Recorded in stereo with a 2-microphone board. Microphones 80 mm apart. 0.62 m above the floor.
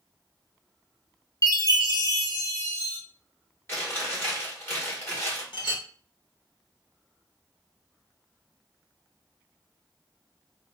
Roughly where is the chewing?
Left.